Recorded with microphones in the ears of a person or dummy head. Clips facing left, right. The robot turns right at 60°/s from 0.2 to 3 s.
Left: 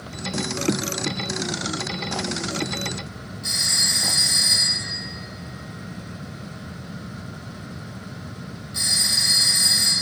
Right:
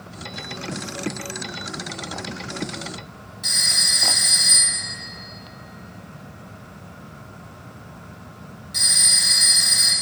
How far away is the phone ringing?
About 2 m.